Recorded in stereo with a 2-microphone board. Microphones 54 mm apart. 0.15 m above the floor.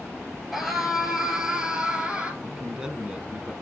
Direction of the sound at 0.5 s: 5° right (ahead or behind).